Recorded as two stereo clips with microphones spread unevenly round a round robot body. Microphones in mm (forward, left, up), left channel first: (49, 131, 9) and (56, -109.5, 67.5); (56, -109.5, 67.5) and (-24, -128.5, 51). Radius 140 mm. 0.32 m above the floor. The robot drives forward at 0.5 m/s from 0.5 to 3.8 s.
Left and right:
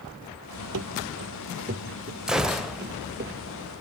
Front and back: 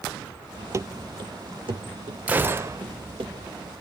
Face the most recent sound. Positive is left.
turn(degrees=175)